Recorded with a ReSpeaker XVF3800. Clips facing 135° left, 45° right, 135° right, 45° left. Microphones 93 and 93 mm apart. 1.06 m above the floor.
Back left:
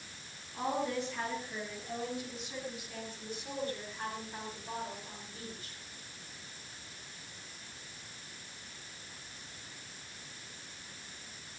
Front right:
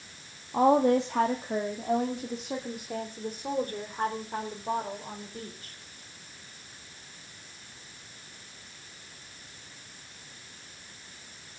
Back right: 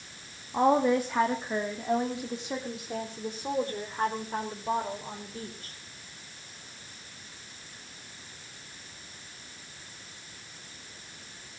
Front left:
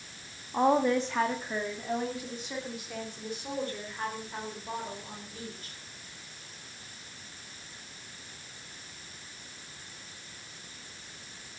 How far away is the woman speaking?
About 1.6 m.